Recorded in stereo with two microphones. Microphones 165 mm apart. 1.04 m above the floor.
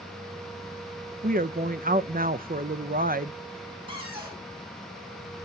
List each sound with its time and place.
1.2 s a woman speaking: 60° right (ahead or behind), 0.5 m
3.9 s a cupboard door: 30° right (ahead or behind), 4 m